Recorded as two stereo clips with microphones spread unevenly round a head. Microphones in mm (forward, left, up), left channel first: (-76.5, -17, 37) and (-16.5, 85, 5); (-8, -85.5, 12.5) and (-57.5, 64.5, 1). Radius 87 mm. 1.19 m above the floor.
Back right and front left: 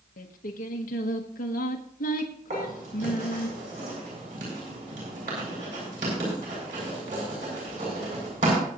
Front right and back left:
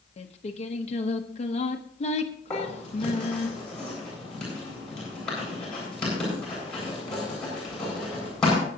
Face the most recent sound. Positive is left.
turn(degrees=15)